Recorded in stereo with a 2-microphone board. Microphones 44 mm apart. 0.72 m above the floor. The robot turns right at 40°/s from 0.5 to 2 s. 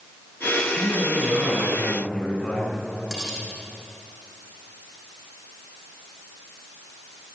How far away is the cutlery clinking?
About 7 m.